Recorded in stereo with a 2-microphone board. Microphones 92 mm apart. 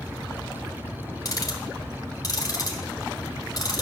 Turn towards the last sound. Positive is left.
turn(degrees=40)  # may be behind; listen again after turning